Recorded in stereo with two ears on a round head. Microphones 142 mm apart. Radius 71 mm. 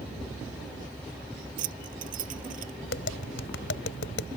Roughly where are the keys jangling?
Right.